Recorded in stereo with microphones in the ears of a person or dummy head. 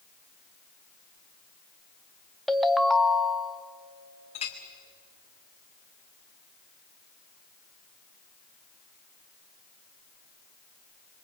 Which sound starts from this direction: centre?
A ringtone, at 2.5 s.